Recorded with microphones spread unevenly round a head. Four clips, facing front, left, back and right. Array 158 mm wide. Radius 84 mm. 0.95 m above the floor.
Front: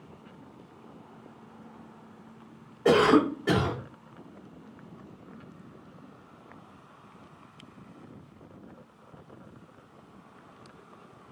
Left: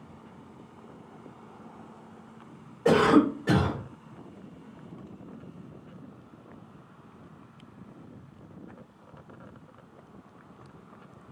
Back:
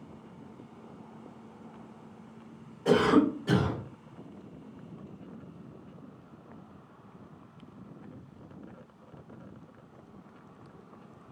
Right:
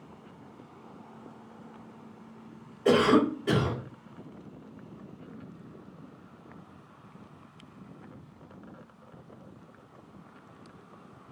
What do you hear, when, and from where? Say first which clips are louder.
2.9 s a cough: left 2 dB, front 2 dB; 15° left, 3 m